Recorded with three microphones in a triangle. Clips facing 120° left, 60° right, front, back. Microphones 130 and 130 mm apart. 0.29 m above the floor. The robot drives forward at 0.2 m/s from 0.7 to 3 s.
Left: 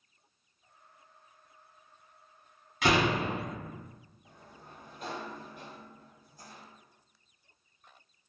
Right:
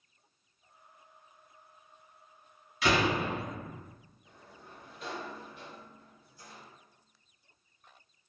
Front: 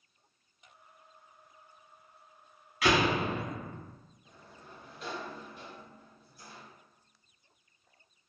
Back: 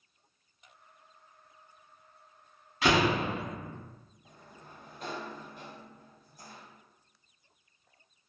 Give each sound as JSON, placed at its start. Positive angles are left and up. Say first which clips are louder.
{"t": 2.8, "sound": "a door slam", "louder": "left 1 dB, back 1 dB", "azimuth_deg": 125, "distance_m": 1.3}
{"t": 4.2, "sound": "a sliding door", "louder": "even, back 1 dB", "azimuth_deg": 150, "distance_m": 0.5}